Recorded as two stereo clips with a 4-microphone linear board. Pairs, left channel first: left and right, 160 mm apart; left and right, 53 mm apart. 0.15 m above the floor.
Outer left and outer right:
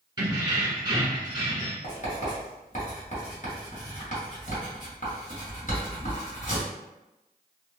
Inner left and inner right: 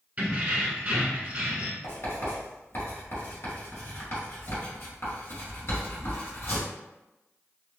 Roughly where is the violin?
I don't hear a violin.